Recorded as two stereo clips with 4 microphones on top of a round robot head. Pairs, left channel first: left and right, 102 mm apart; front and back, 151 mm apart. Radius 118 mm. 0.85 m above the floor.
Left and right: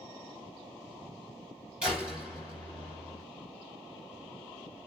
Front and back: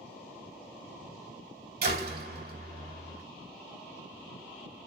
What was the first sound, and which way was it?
A door slam, 175° right.